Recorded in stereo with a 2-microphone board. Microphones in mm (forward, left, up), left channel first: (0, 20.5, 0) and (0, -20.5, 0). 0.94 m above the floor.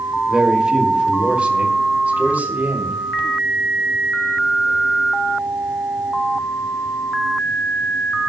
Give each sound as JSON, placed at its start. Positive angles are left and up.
{"t": 0.3, "sound": "a man speaking", "side_deg": -15, "distance_m": 2.0}